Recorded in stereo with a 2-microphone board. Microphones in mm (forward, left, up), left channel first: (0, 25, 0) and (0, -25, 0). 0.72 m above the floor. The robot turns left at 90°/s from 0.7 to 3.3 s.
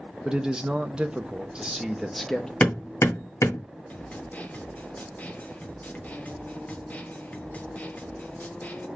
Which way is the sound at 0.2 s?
15° right (ahead or behind).